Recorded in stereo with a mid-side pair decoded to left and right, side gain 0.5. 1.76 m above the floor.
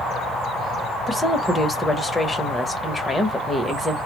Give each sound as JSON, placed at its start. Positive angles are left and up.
{"t": 1.1, "sound": "a woman speaking", "azimuth_deg": 20, "distance_m": 0.9}